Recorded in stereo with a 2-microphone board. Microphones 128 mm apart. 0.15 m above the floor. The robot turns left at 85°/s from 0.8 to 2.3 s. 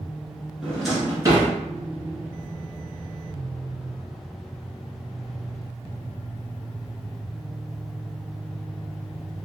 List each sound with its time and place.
0.6 s a drawer: 5° left (ahead or behind), 1.3 m; by 1.5 s 40° right (ahead or behind), 1.3 m